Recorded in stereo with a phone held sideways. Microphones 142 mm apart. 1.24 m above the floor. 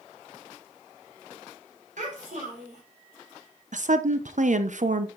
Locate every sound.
2.0 s a child speaking: 60° right (ahead or behind), 3.5 m
3.7 s a woman speaking: 60° right (ahead or behind), 0.7 m